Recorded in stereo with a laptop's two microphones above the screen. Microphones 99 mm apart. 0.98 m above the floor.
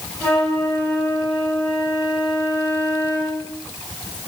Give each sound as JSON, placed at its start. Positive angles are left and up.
{"t": 0.2, "sound": "a flute", "side_deg": 20, "distance_m": 4.0}